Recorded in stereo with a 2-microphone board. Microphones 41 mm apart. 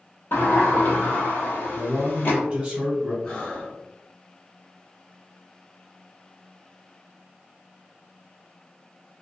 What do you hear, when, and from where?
0.3 s a sliding door: 60° left (ahead or behind), 0.8 m
1.7 s a man speaking: 10° right (ahead or behind), 1.4 m
3.2 s breathing: 20° left (ahead or behind), 1.1 m